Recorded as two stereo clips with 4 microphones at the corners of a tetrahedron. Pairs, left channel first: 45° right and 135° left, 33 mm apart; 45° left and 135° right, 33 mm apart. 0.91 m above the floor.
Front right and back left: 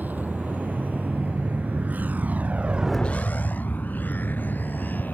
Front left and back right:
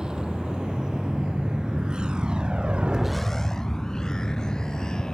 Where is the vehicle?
160° left; by 5.1 s 25° right.